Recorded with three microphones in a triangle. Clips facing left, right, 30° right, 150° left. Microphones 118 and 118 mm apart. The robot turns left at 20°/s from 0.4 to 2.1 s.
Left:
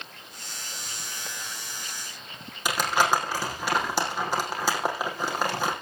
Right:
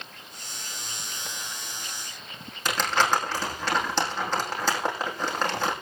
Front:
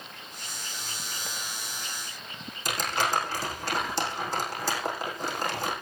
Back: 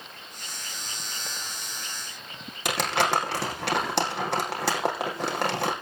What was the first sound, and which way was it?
Crumpling, 170° left.